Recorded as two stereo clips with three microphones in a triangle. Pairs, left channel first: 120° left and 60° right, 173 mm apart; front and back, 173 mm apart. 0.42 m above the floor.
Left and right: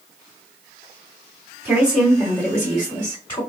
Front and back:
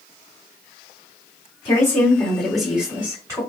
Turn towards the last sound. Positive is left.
turn(degrees=135)